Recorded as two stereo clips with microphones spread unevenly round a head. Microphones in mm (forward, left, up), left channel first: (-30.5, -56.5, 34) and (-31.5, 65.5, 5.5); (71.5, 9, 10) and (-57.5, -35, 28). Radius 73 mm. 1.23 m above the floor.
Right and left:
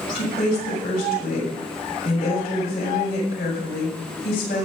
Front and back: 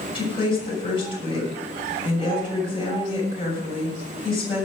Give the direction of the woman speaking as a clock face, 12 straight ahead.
1 o'clock.